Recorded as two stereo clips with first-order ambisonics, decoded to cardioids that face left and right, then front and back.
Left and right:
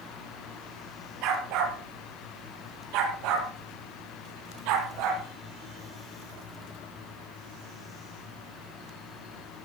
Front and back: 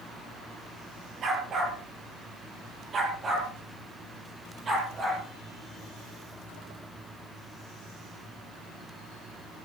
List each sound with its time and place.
1.2 s a dog barking: 120° right, 5.5 m; by 5.2 s 110° right, 8 m